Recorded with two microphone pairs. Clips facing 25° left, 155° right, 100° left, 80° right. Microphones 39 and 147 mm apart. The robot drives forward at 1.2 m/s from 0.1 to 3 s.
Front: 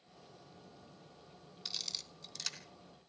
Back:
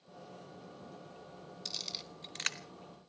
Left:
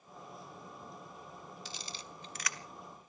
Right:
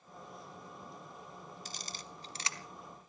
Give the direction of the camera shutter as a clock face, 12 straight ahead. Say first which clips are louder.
Even, even; 2 o'clock.